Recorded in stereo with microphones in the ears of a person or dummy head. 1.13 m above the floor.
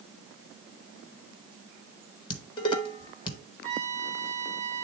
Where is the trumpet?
Centre (ahead or behind), 5 m.